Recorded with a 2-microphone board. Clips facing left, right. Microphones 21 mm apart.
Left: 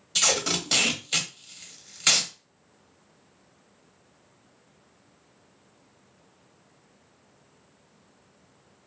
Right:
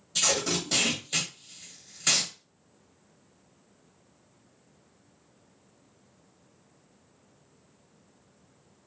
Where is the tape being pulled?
40° left (ahead or behind), 0.7 m.